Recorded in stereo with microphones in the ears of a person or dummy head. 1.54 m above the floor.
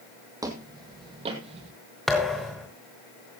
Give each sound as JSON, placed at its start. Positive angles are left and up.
{"t": 0.4, "sound": "footsteps", "side_deg": -20, "distance_m": 2.5}
{"t": 2.1, "sound": "a thud", "side_deg": 5, "distance_m": 1.5}